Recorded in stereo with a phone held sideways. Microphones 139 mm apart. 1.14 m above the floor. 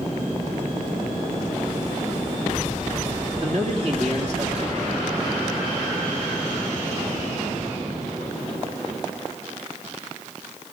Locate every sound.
3.4 s a man speaking: 55° right (ahead or behind), 2.5 m